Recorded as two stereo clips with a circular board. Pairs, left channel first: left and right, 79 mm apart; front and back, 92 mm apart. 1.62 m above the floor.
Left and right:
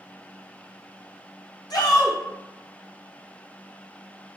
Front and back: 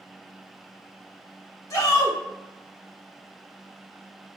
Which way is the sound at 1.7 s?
55° left.